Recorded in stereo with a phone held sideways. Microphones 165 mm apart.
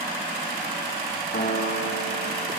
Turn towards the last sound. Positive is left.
turn(degrees=75)  # may be behind; listen again after turning